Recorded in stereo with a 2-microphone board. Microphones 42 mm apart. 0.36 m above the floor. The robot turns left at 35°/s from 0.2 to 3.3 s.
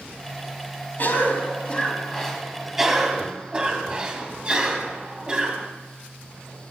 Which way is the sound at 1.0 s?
50° left.